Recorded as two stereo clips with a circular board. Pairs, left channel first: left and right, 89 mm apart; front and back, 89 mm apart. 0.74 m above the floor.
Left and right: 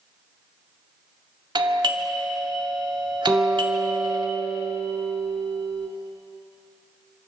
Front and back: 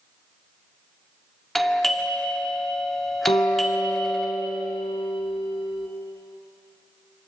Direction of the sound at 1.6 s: 90° right.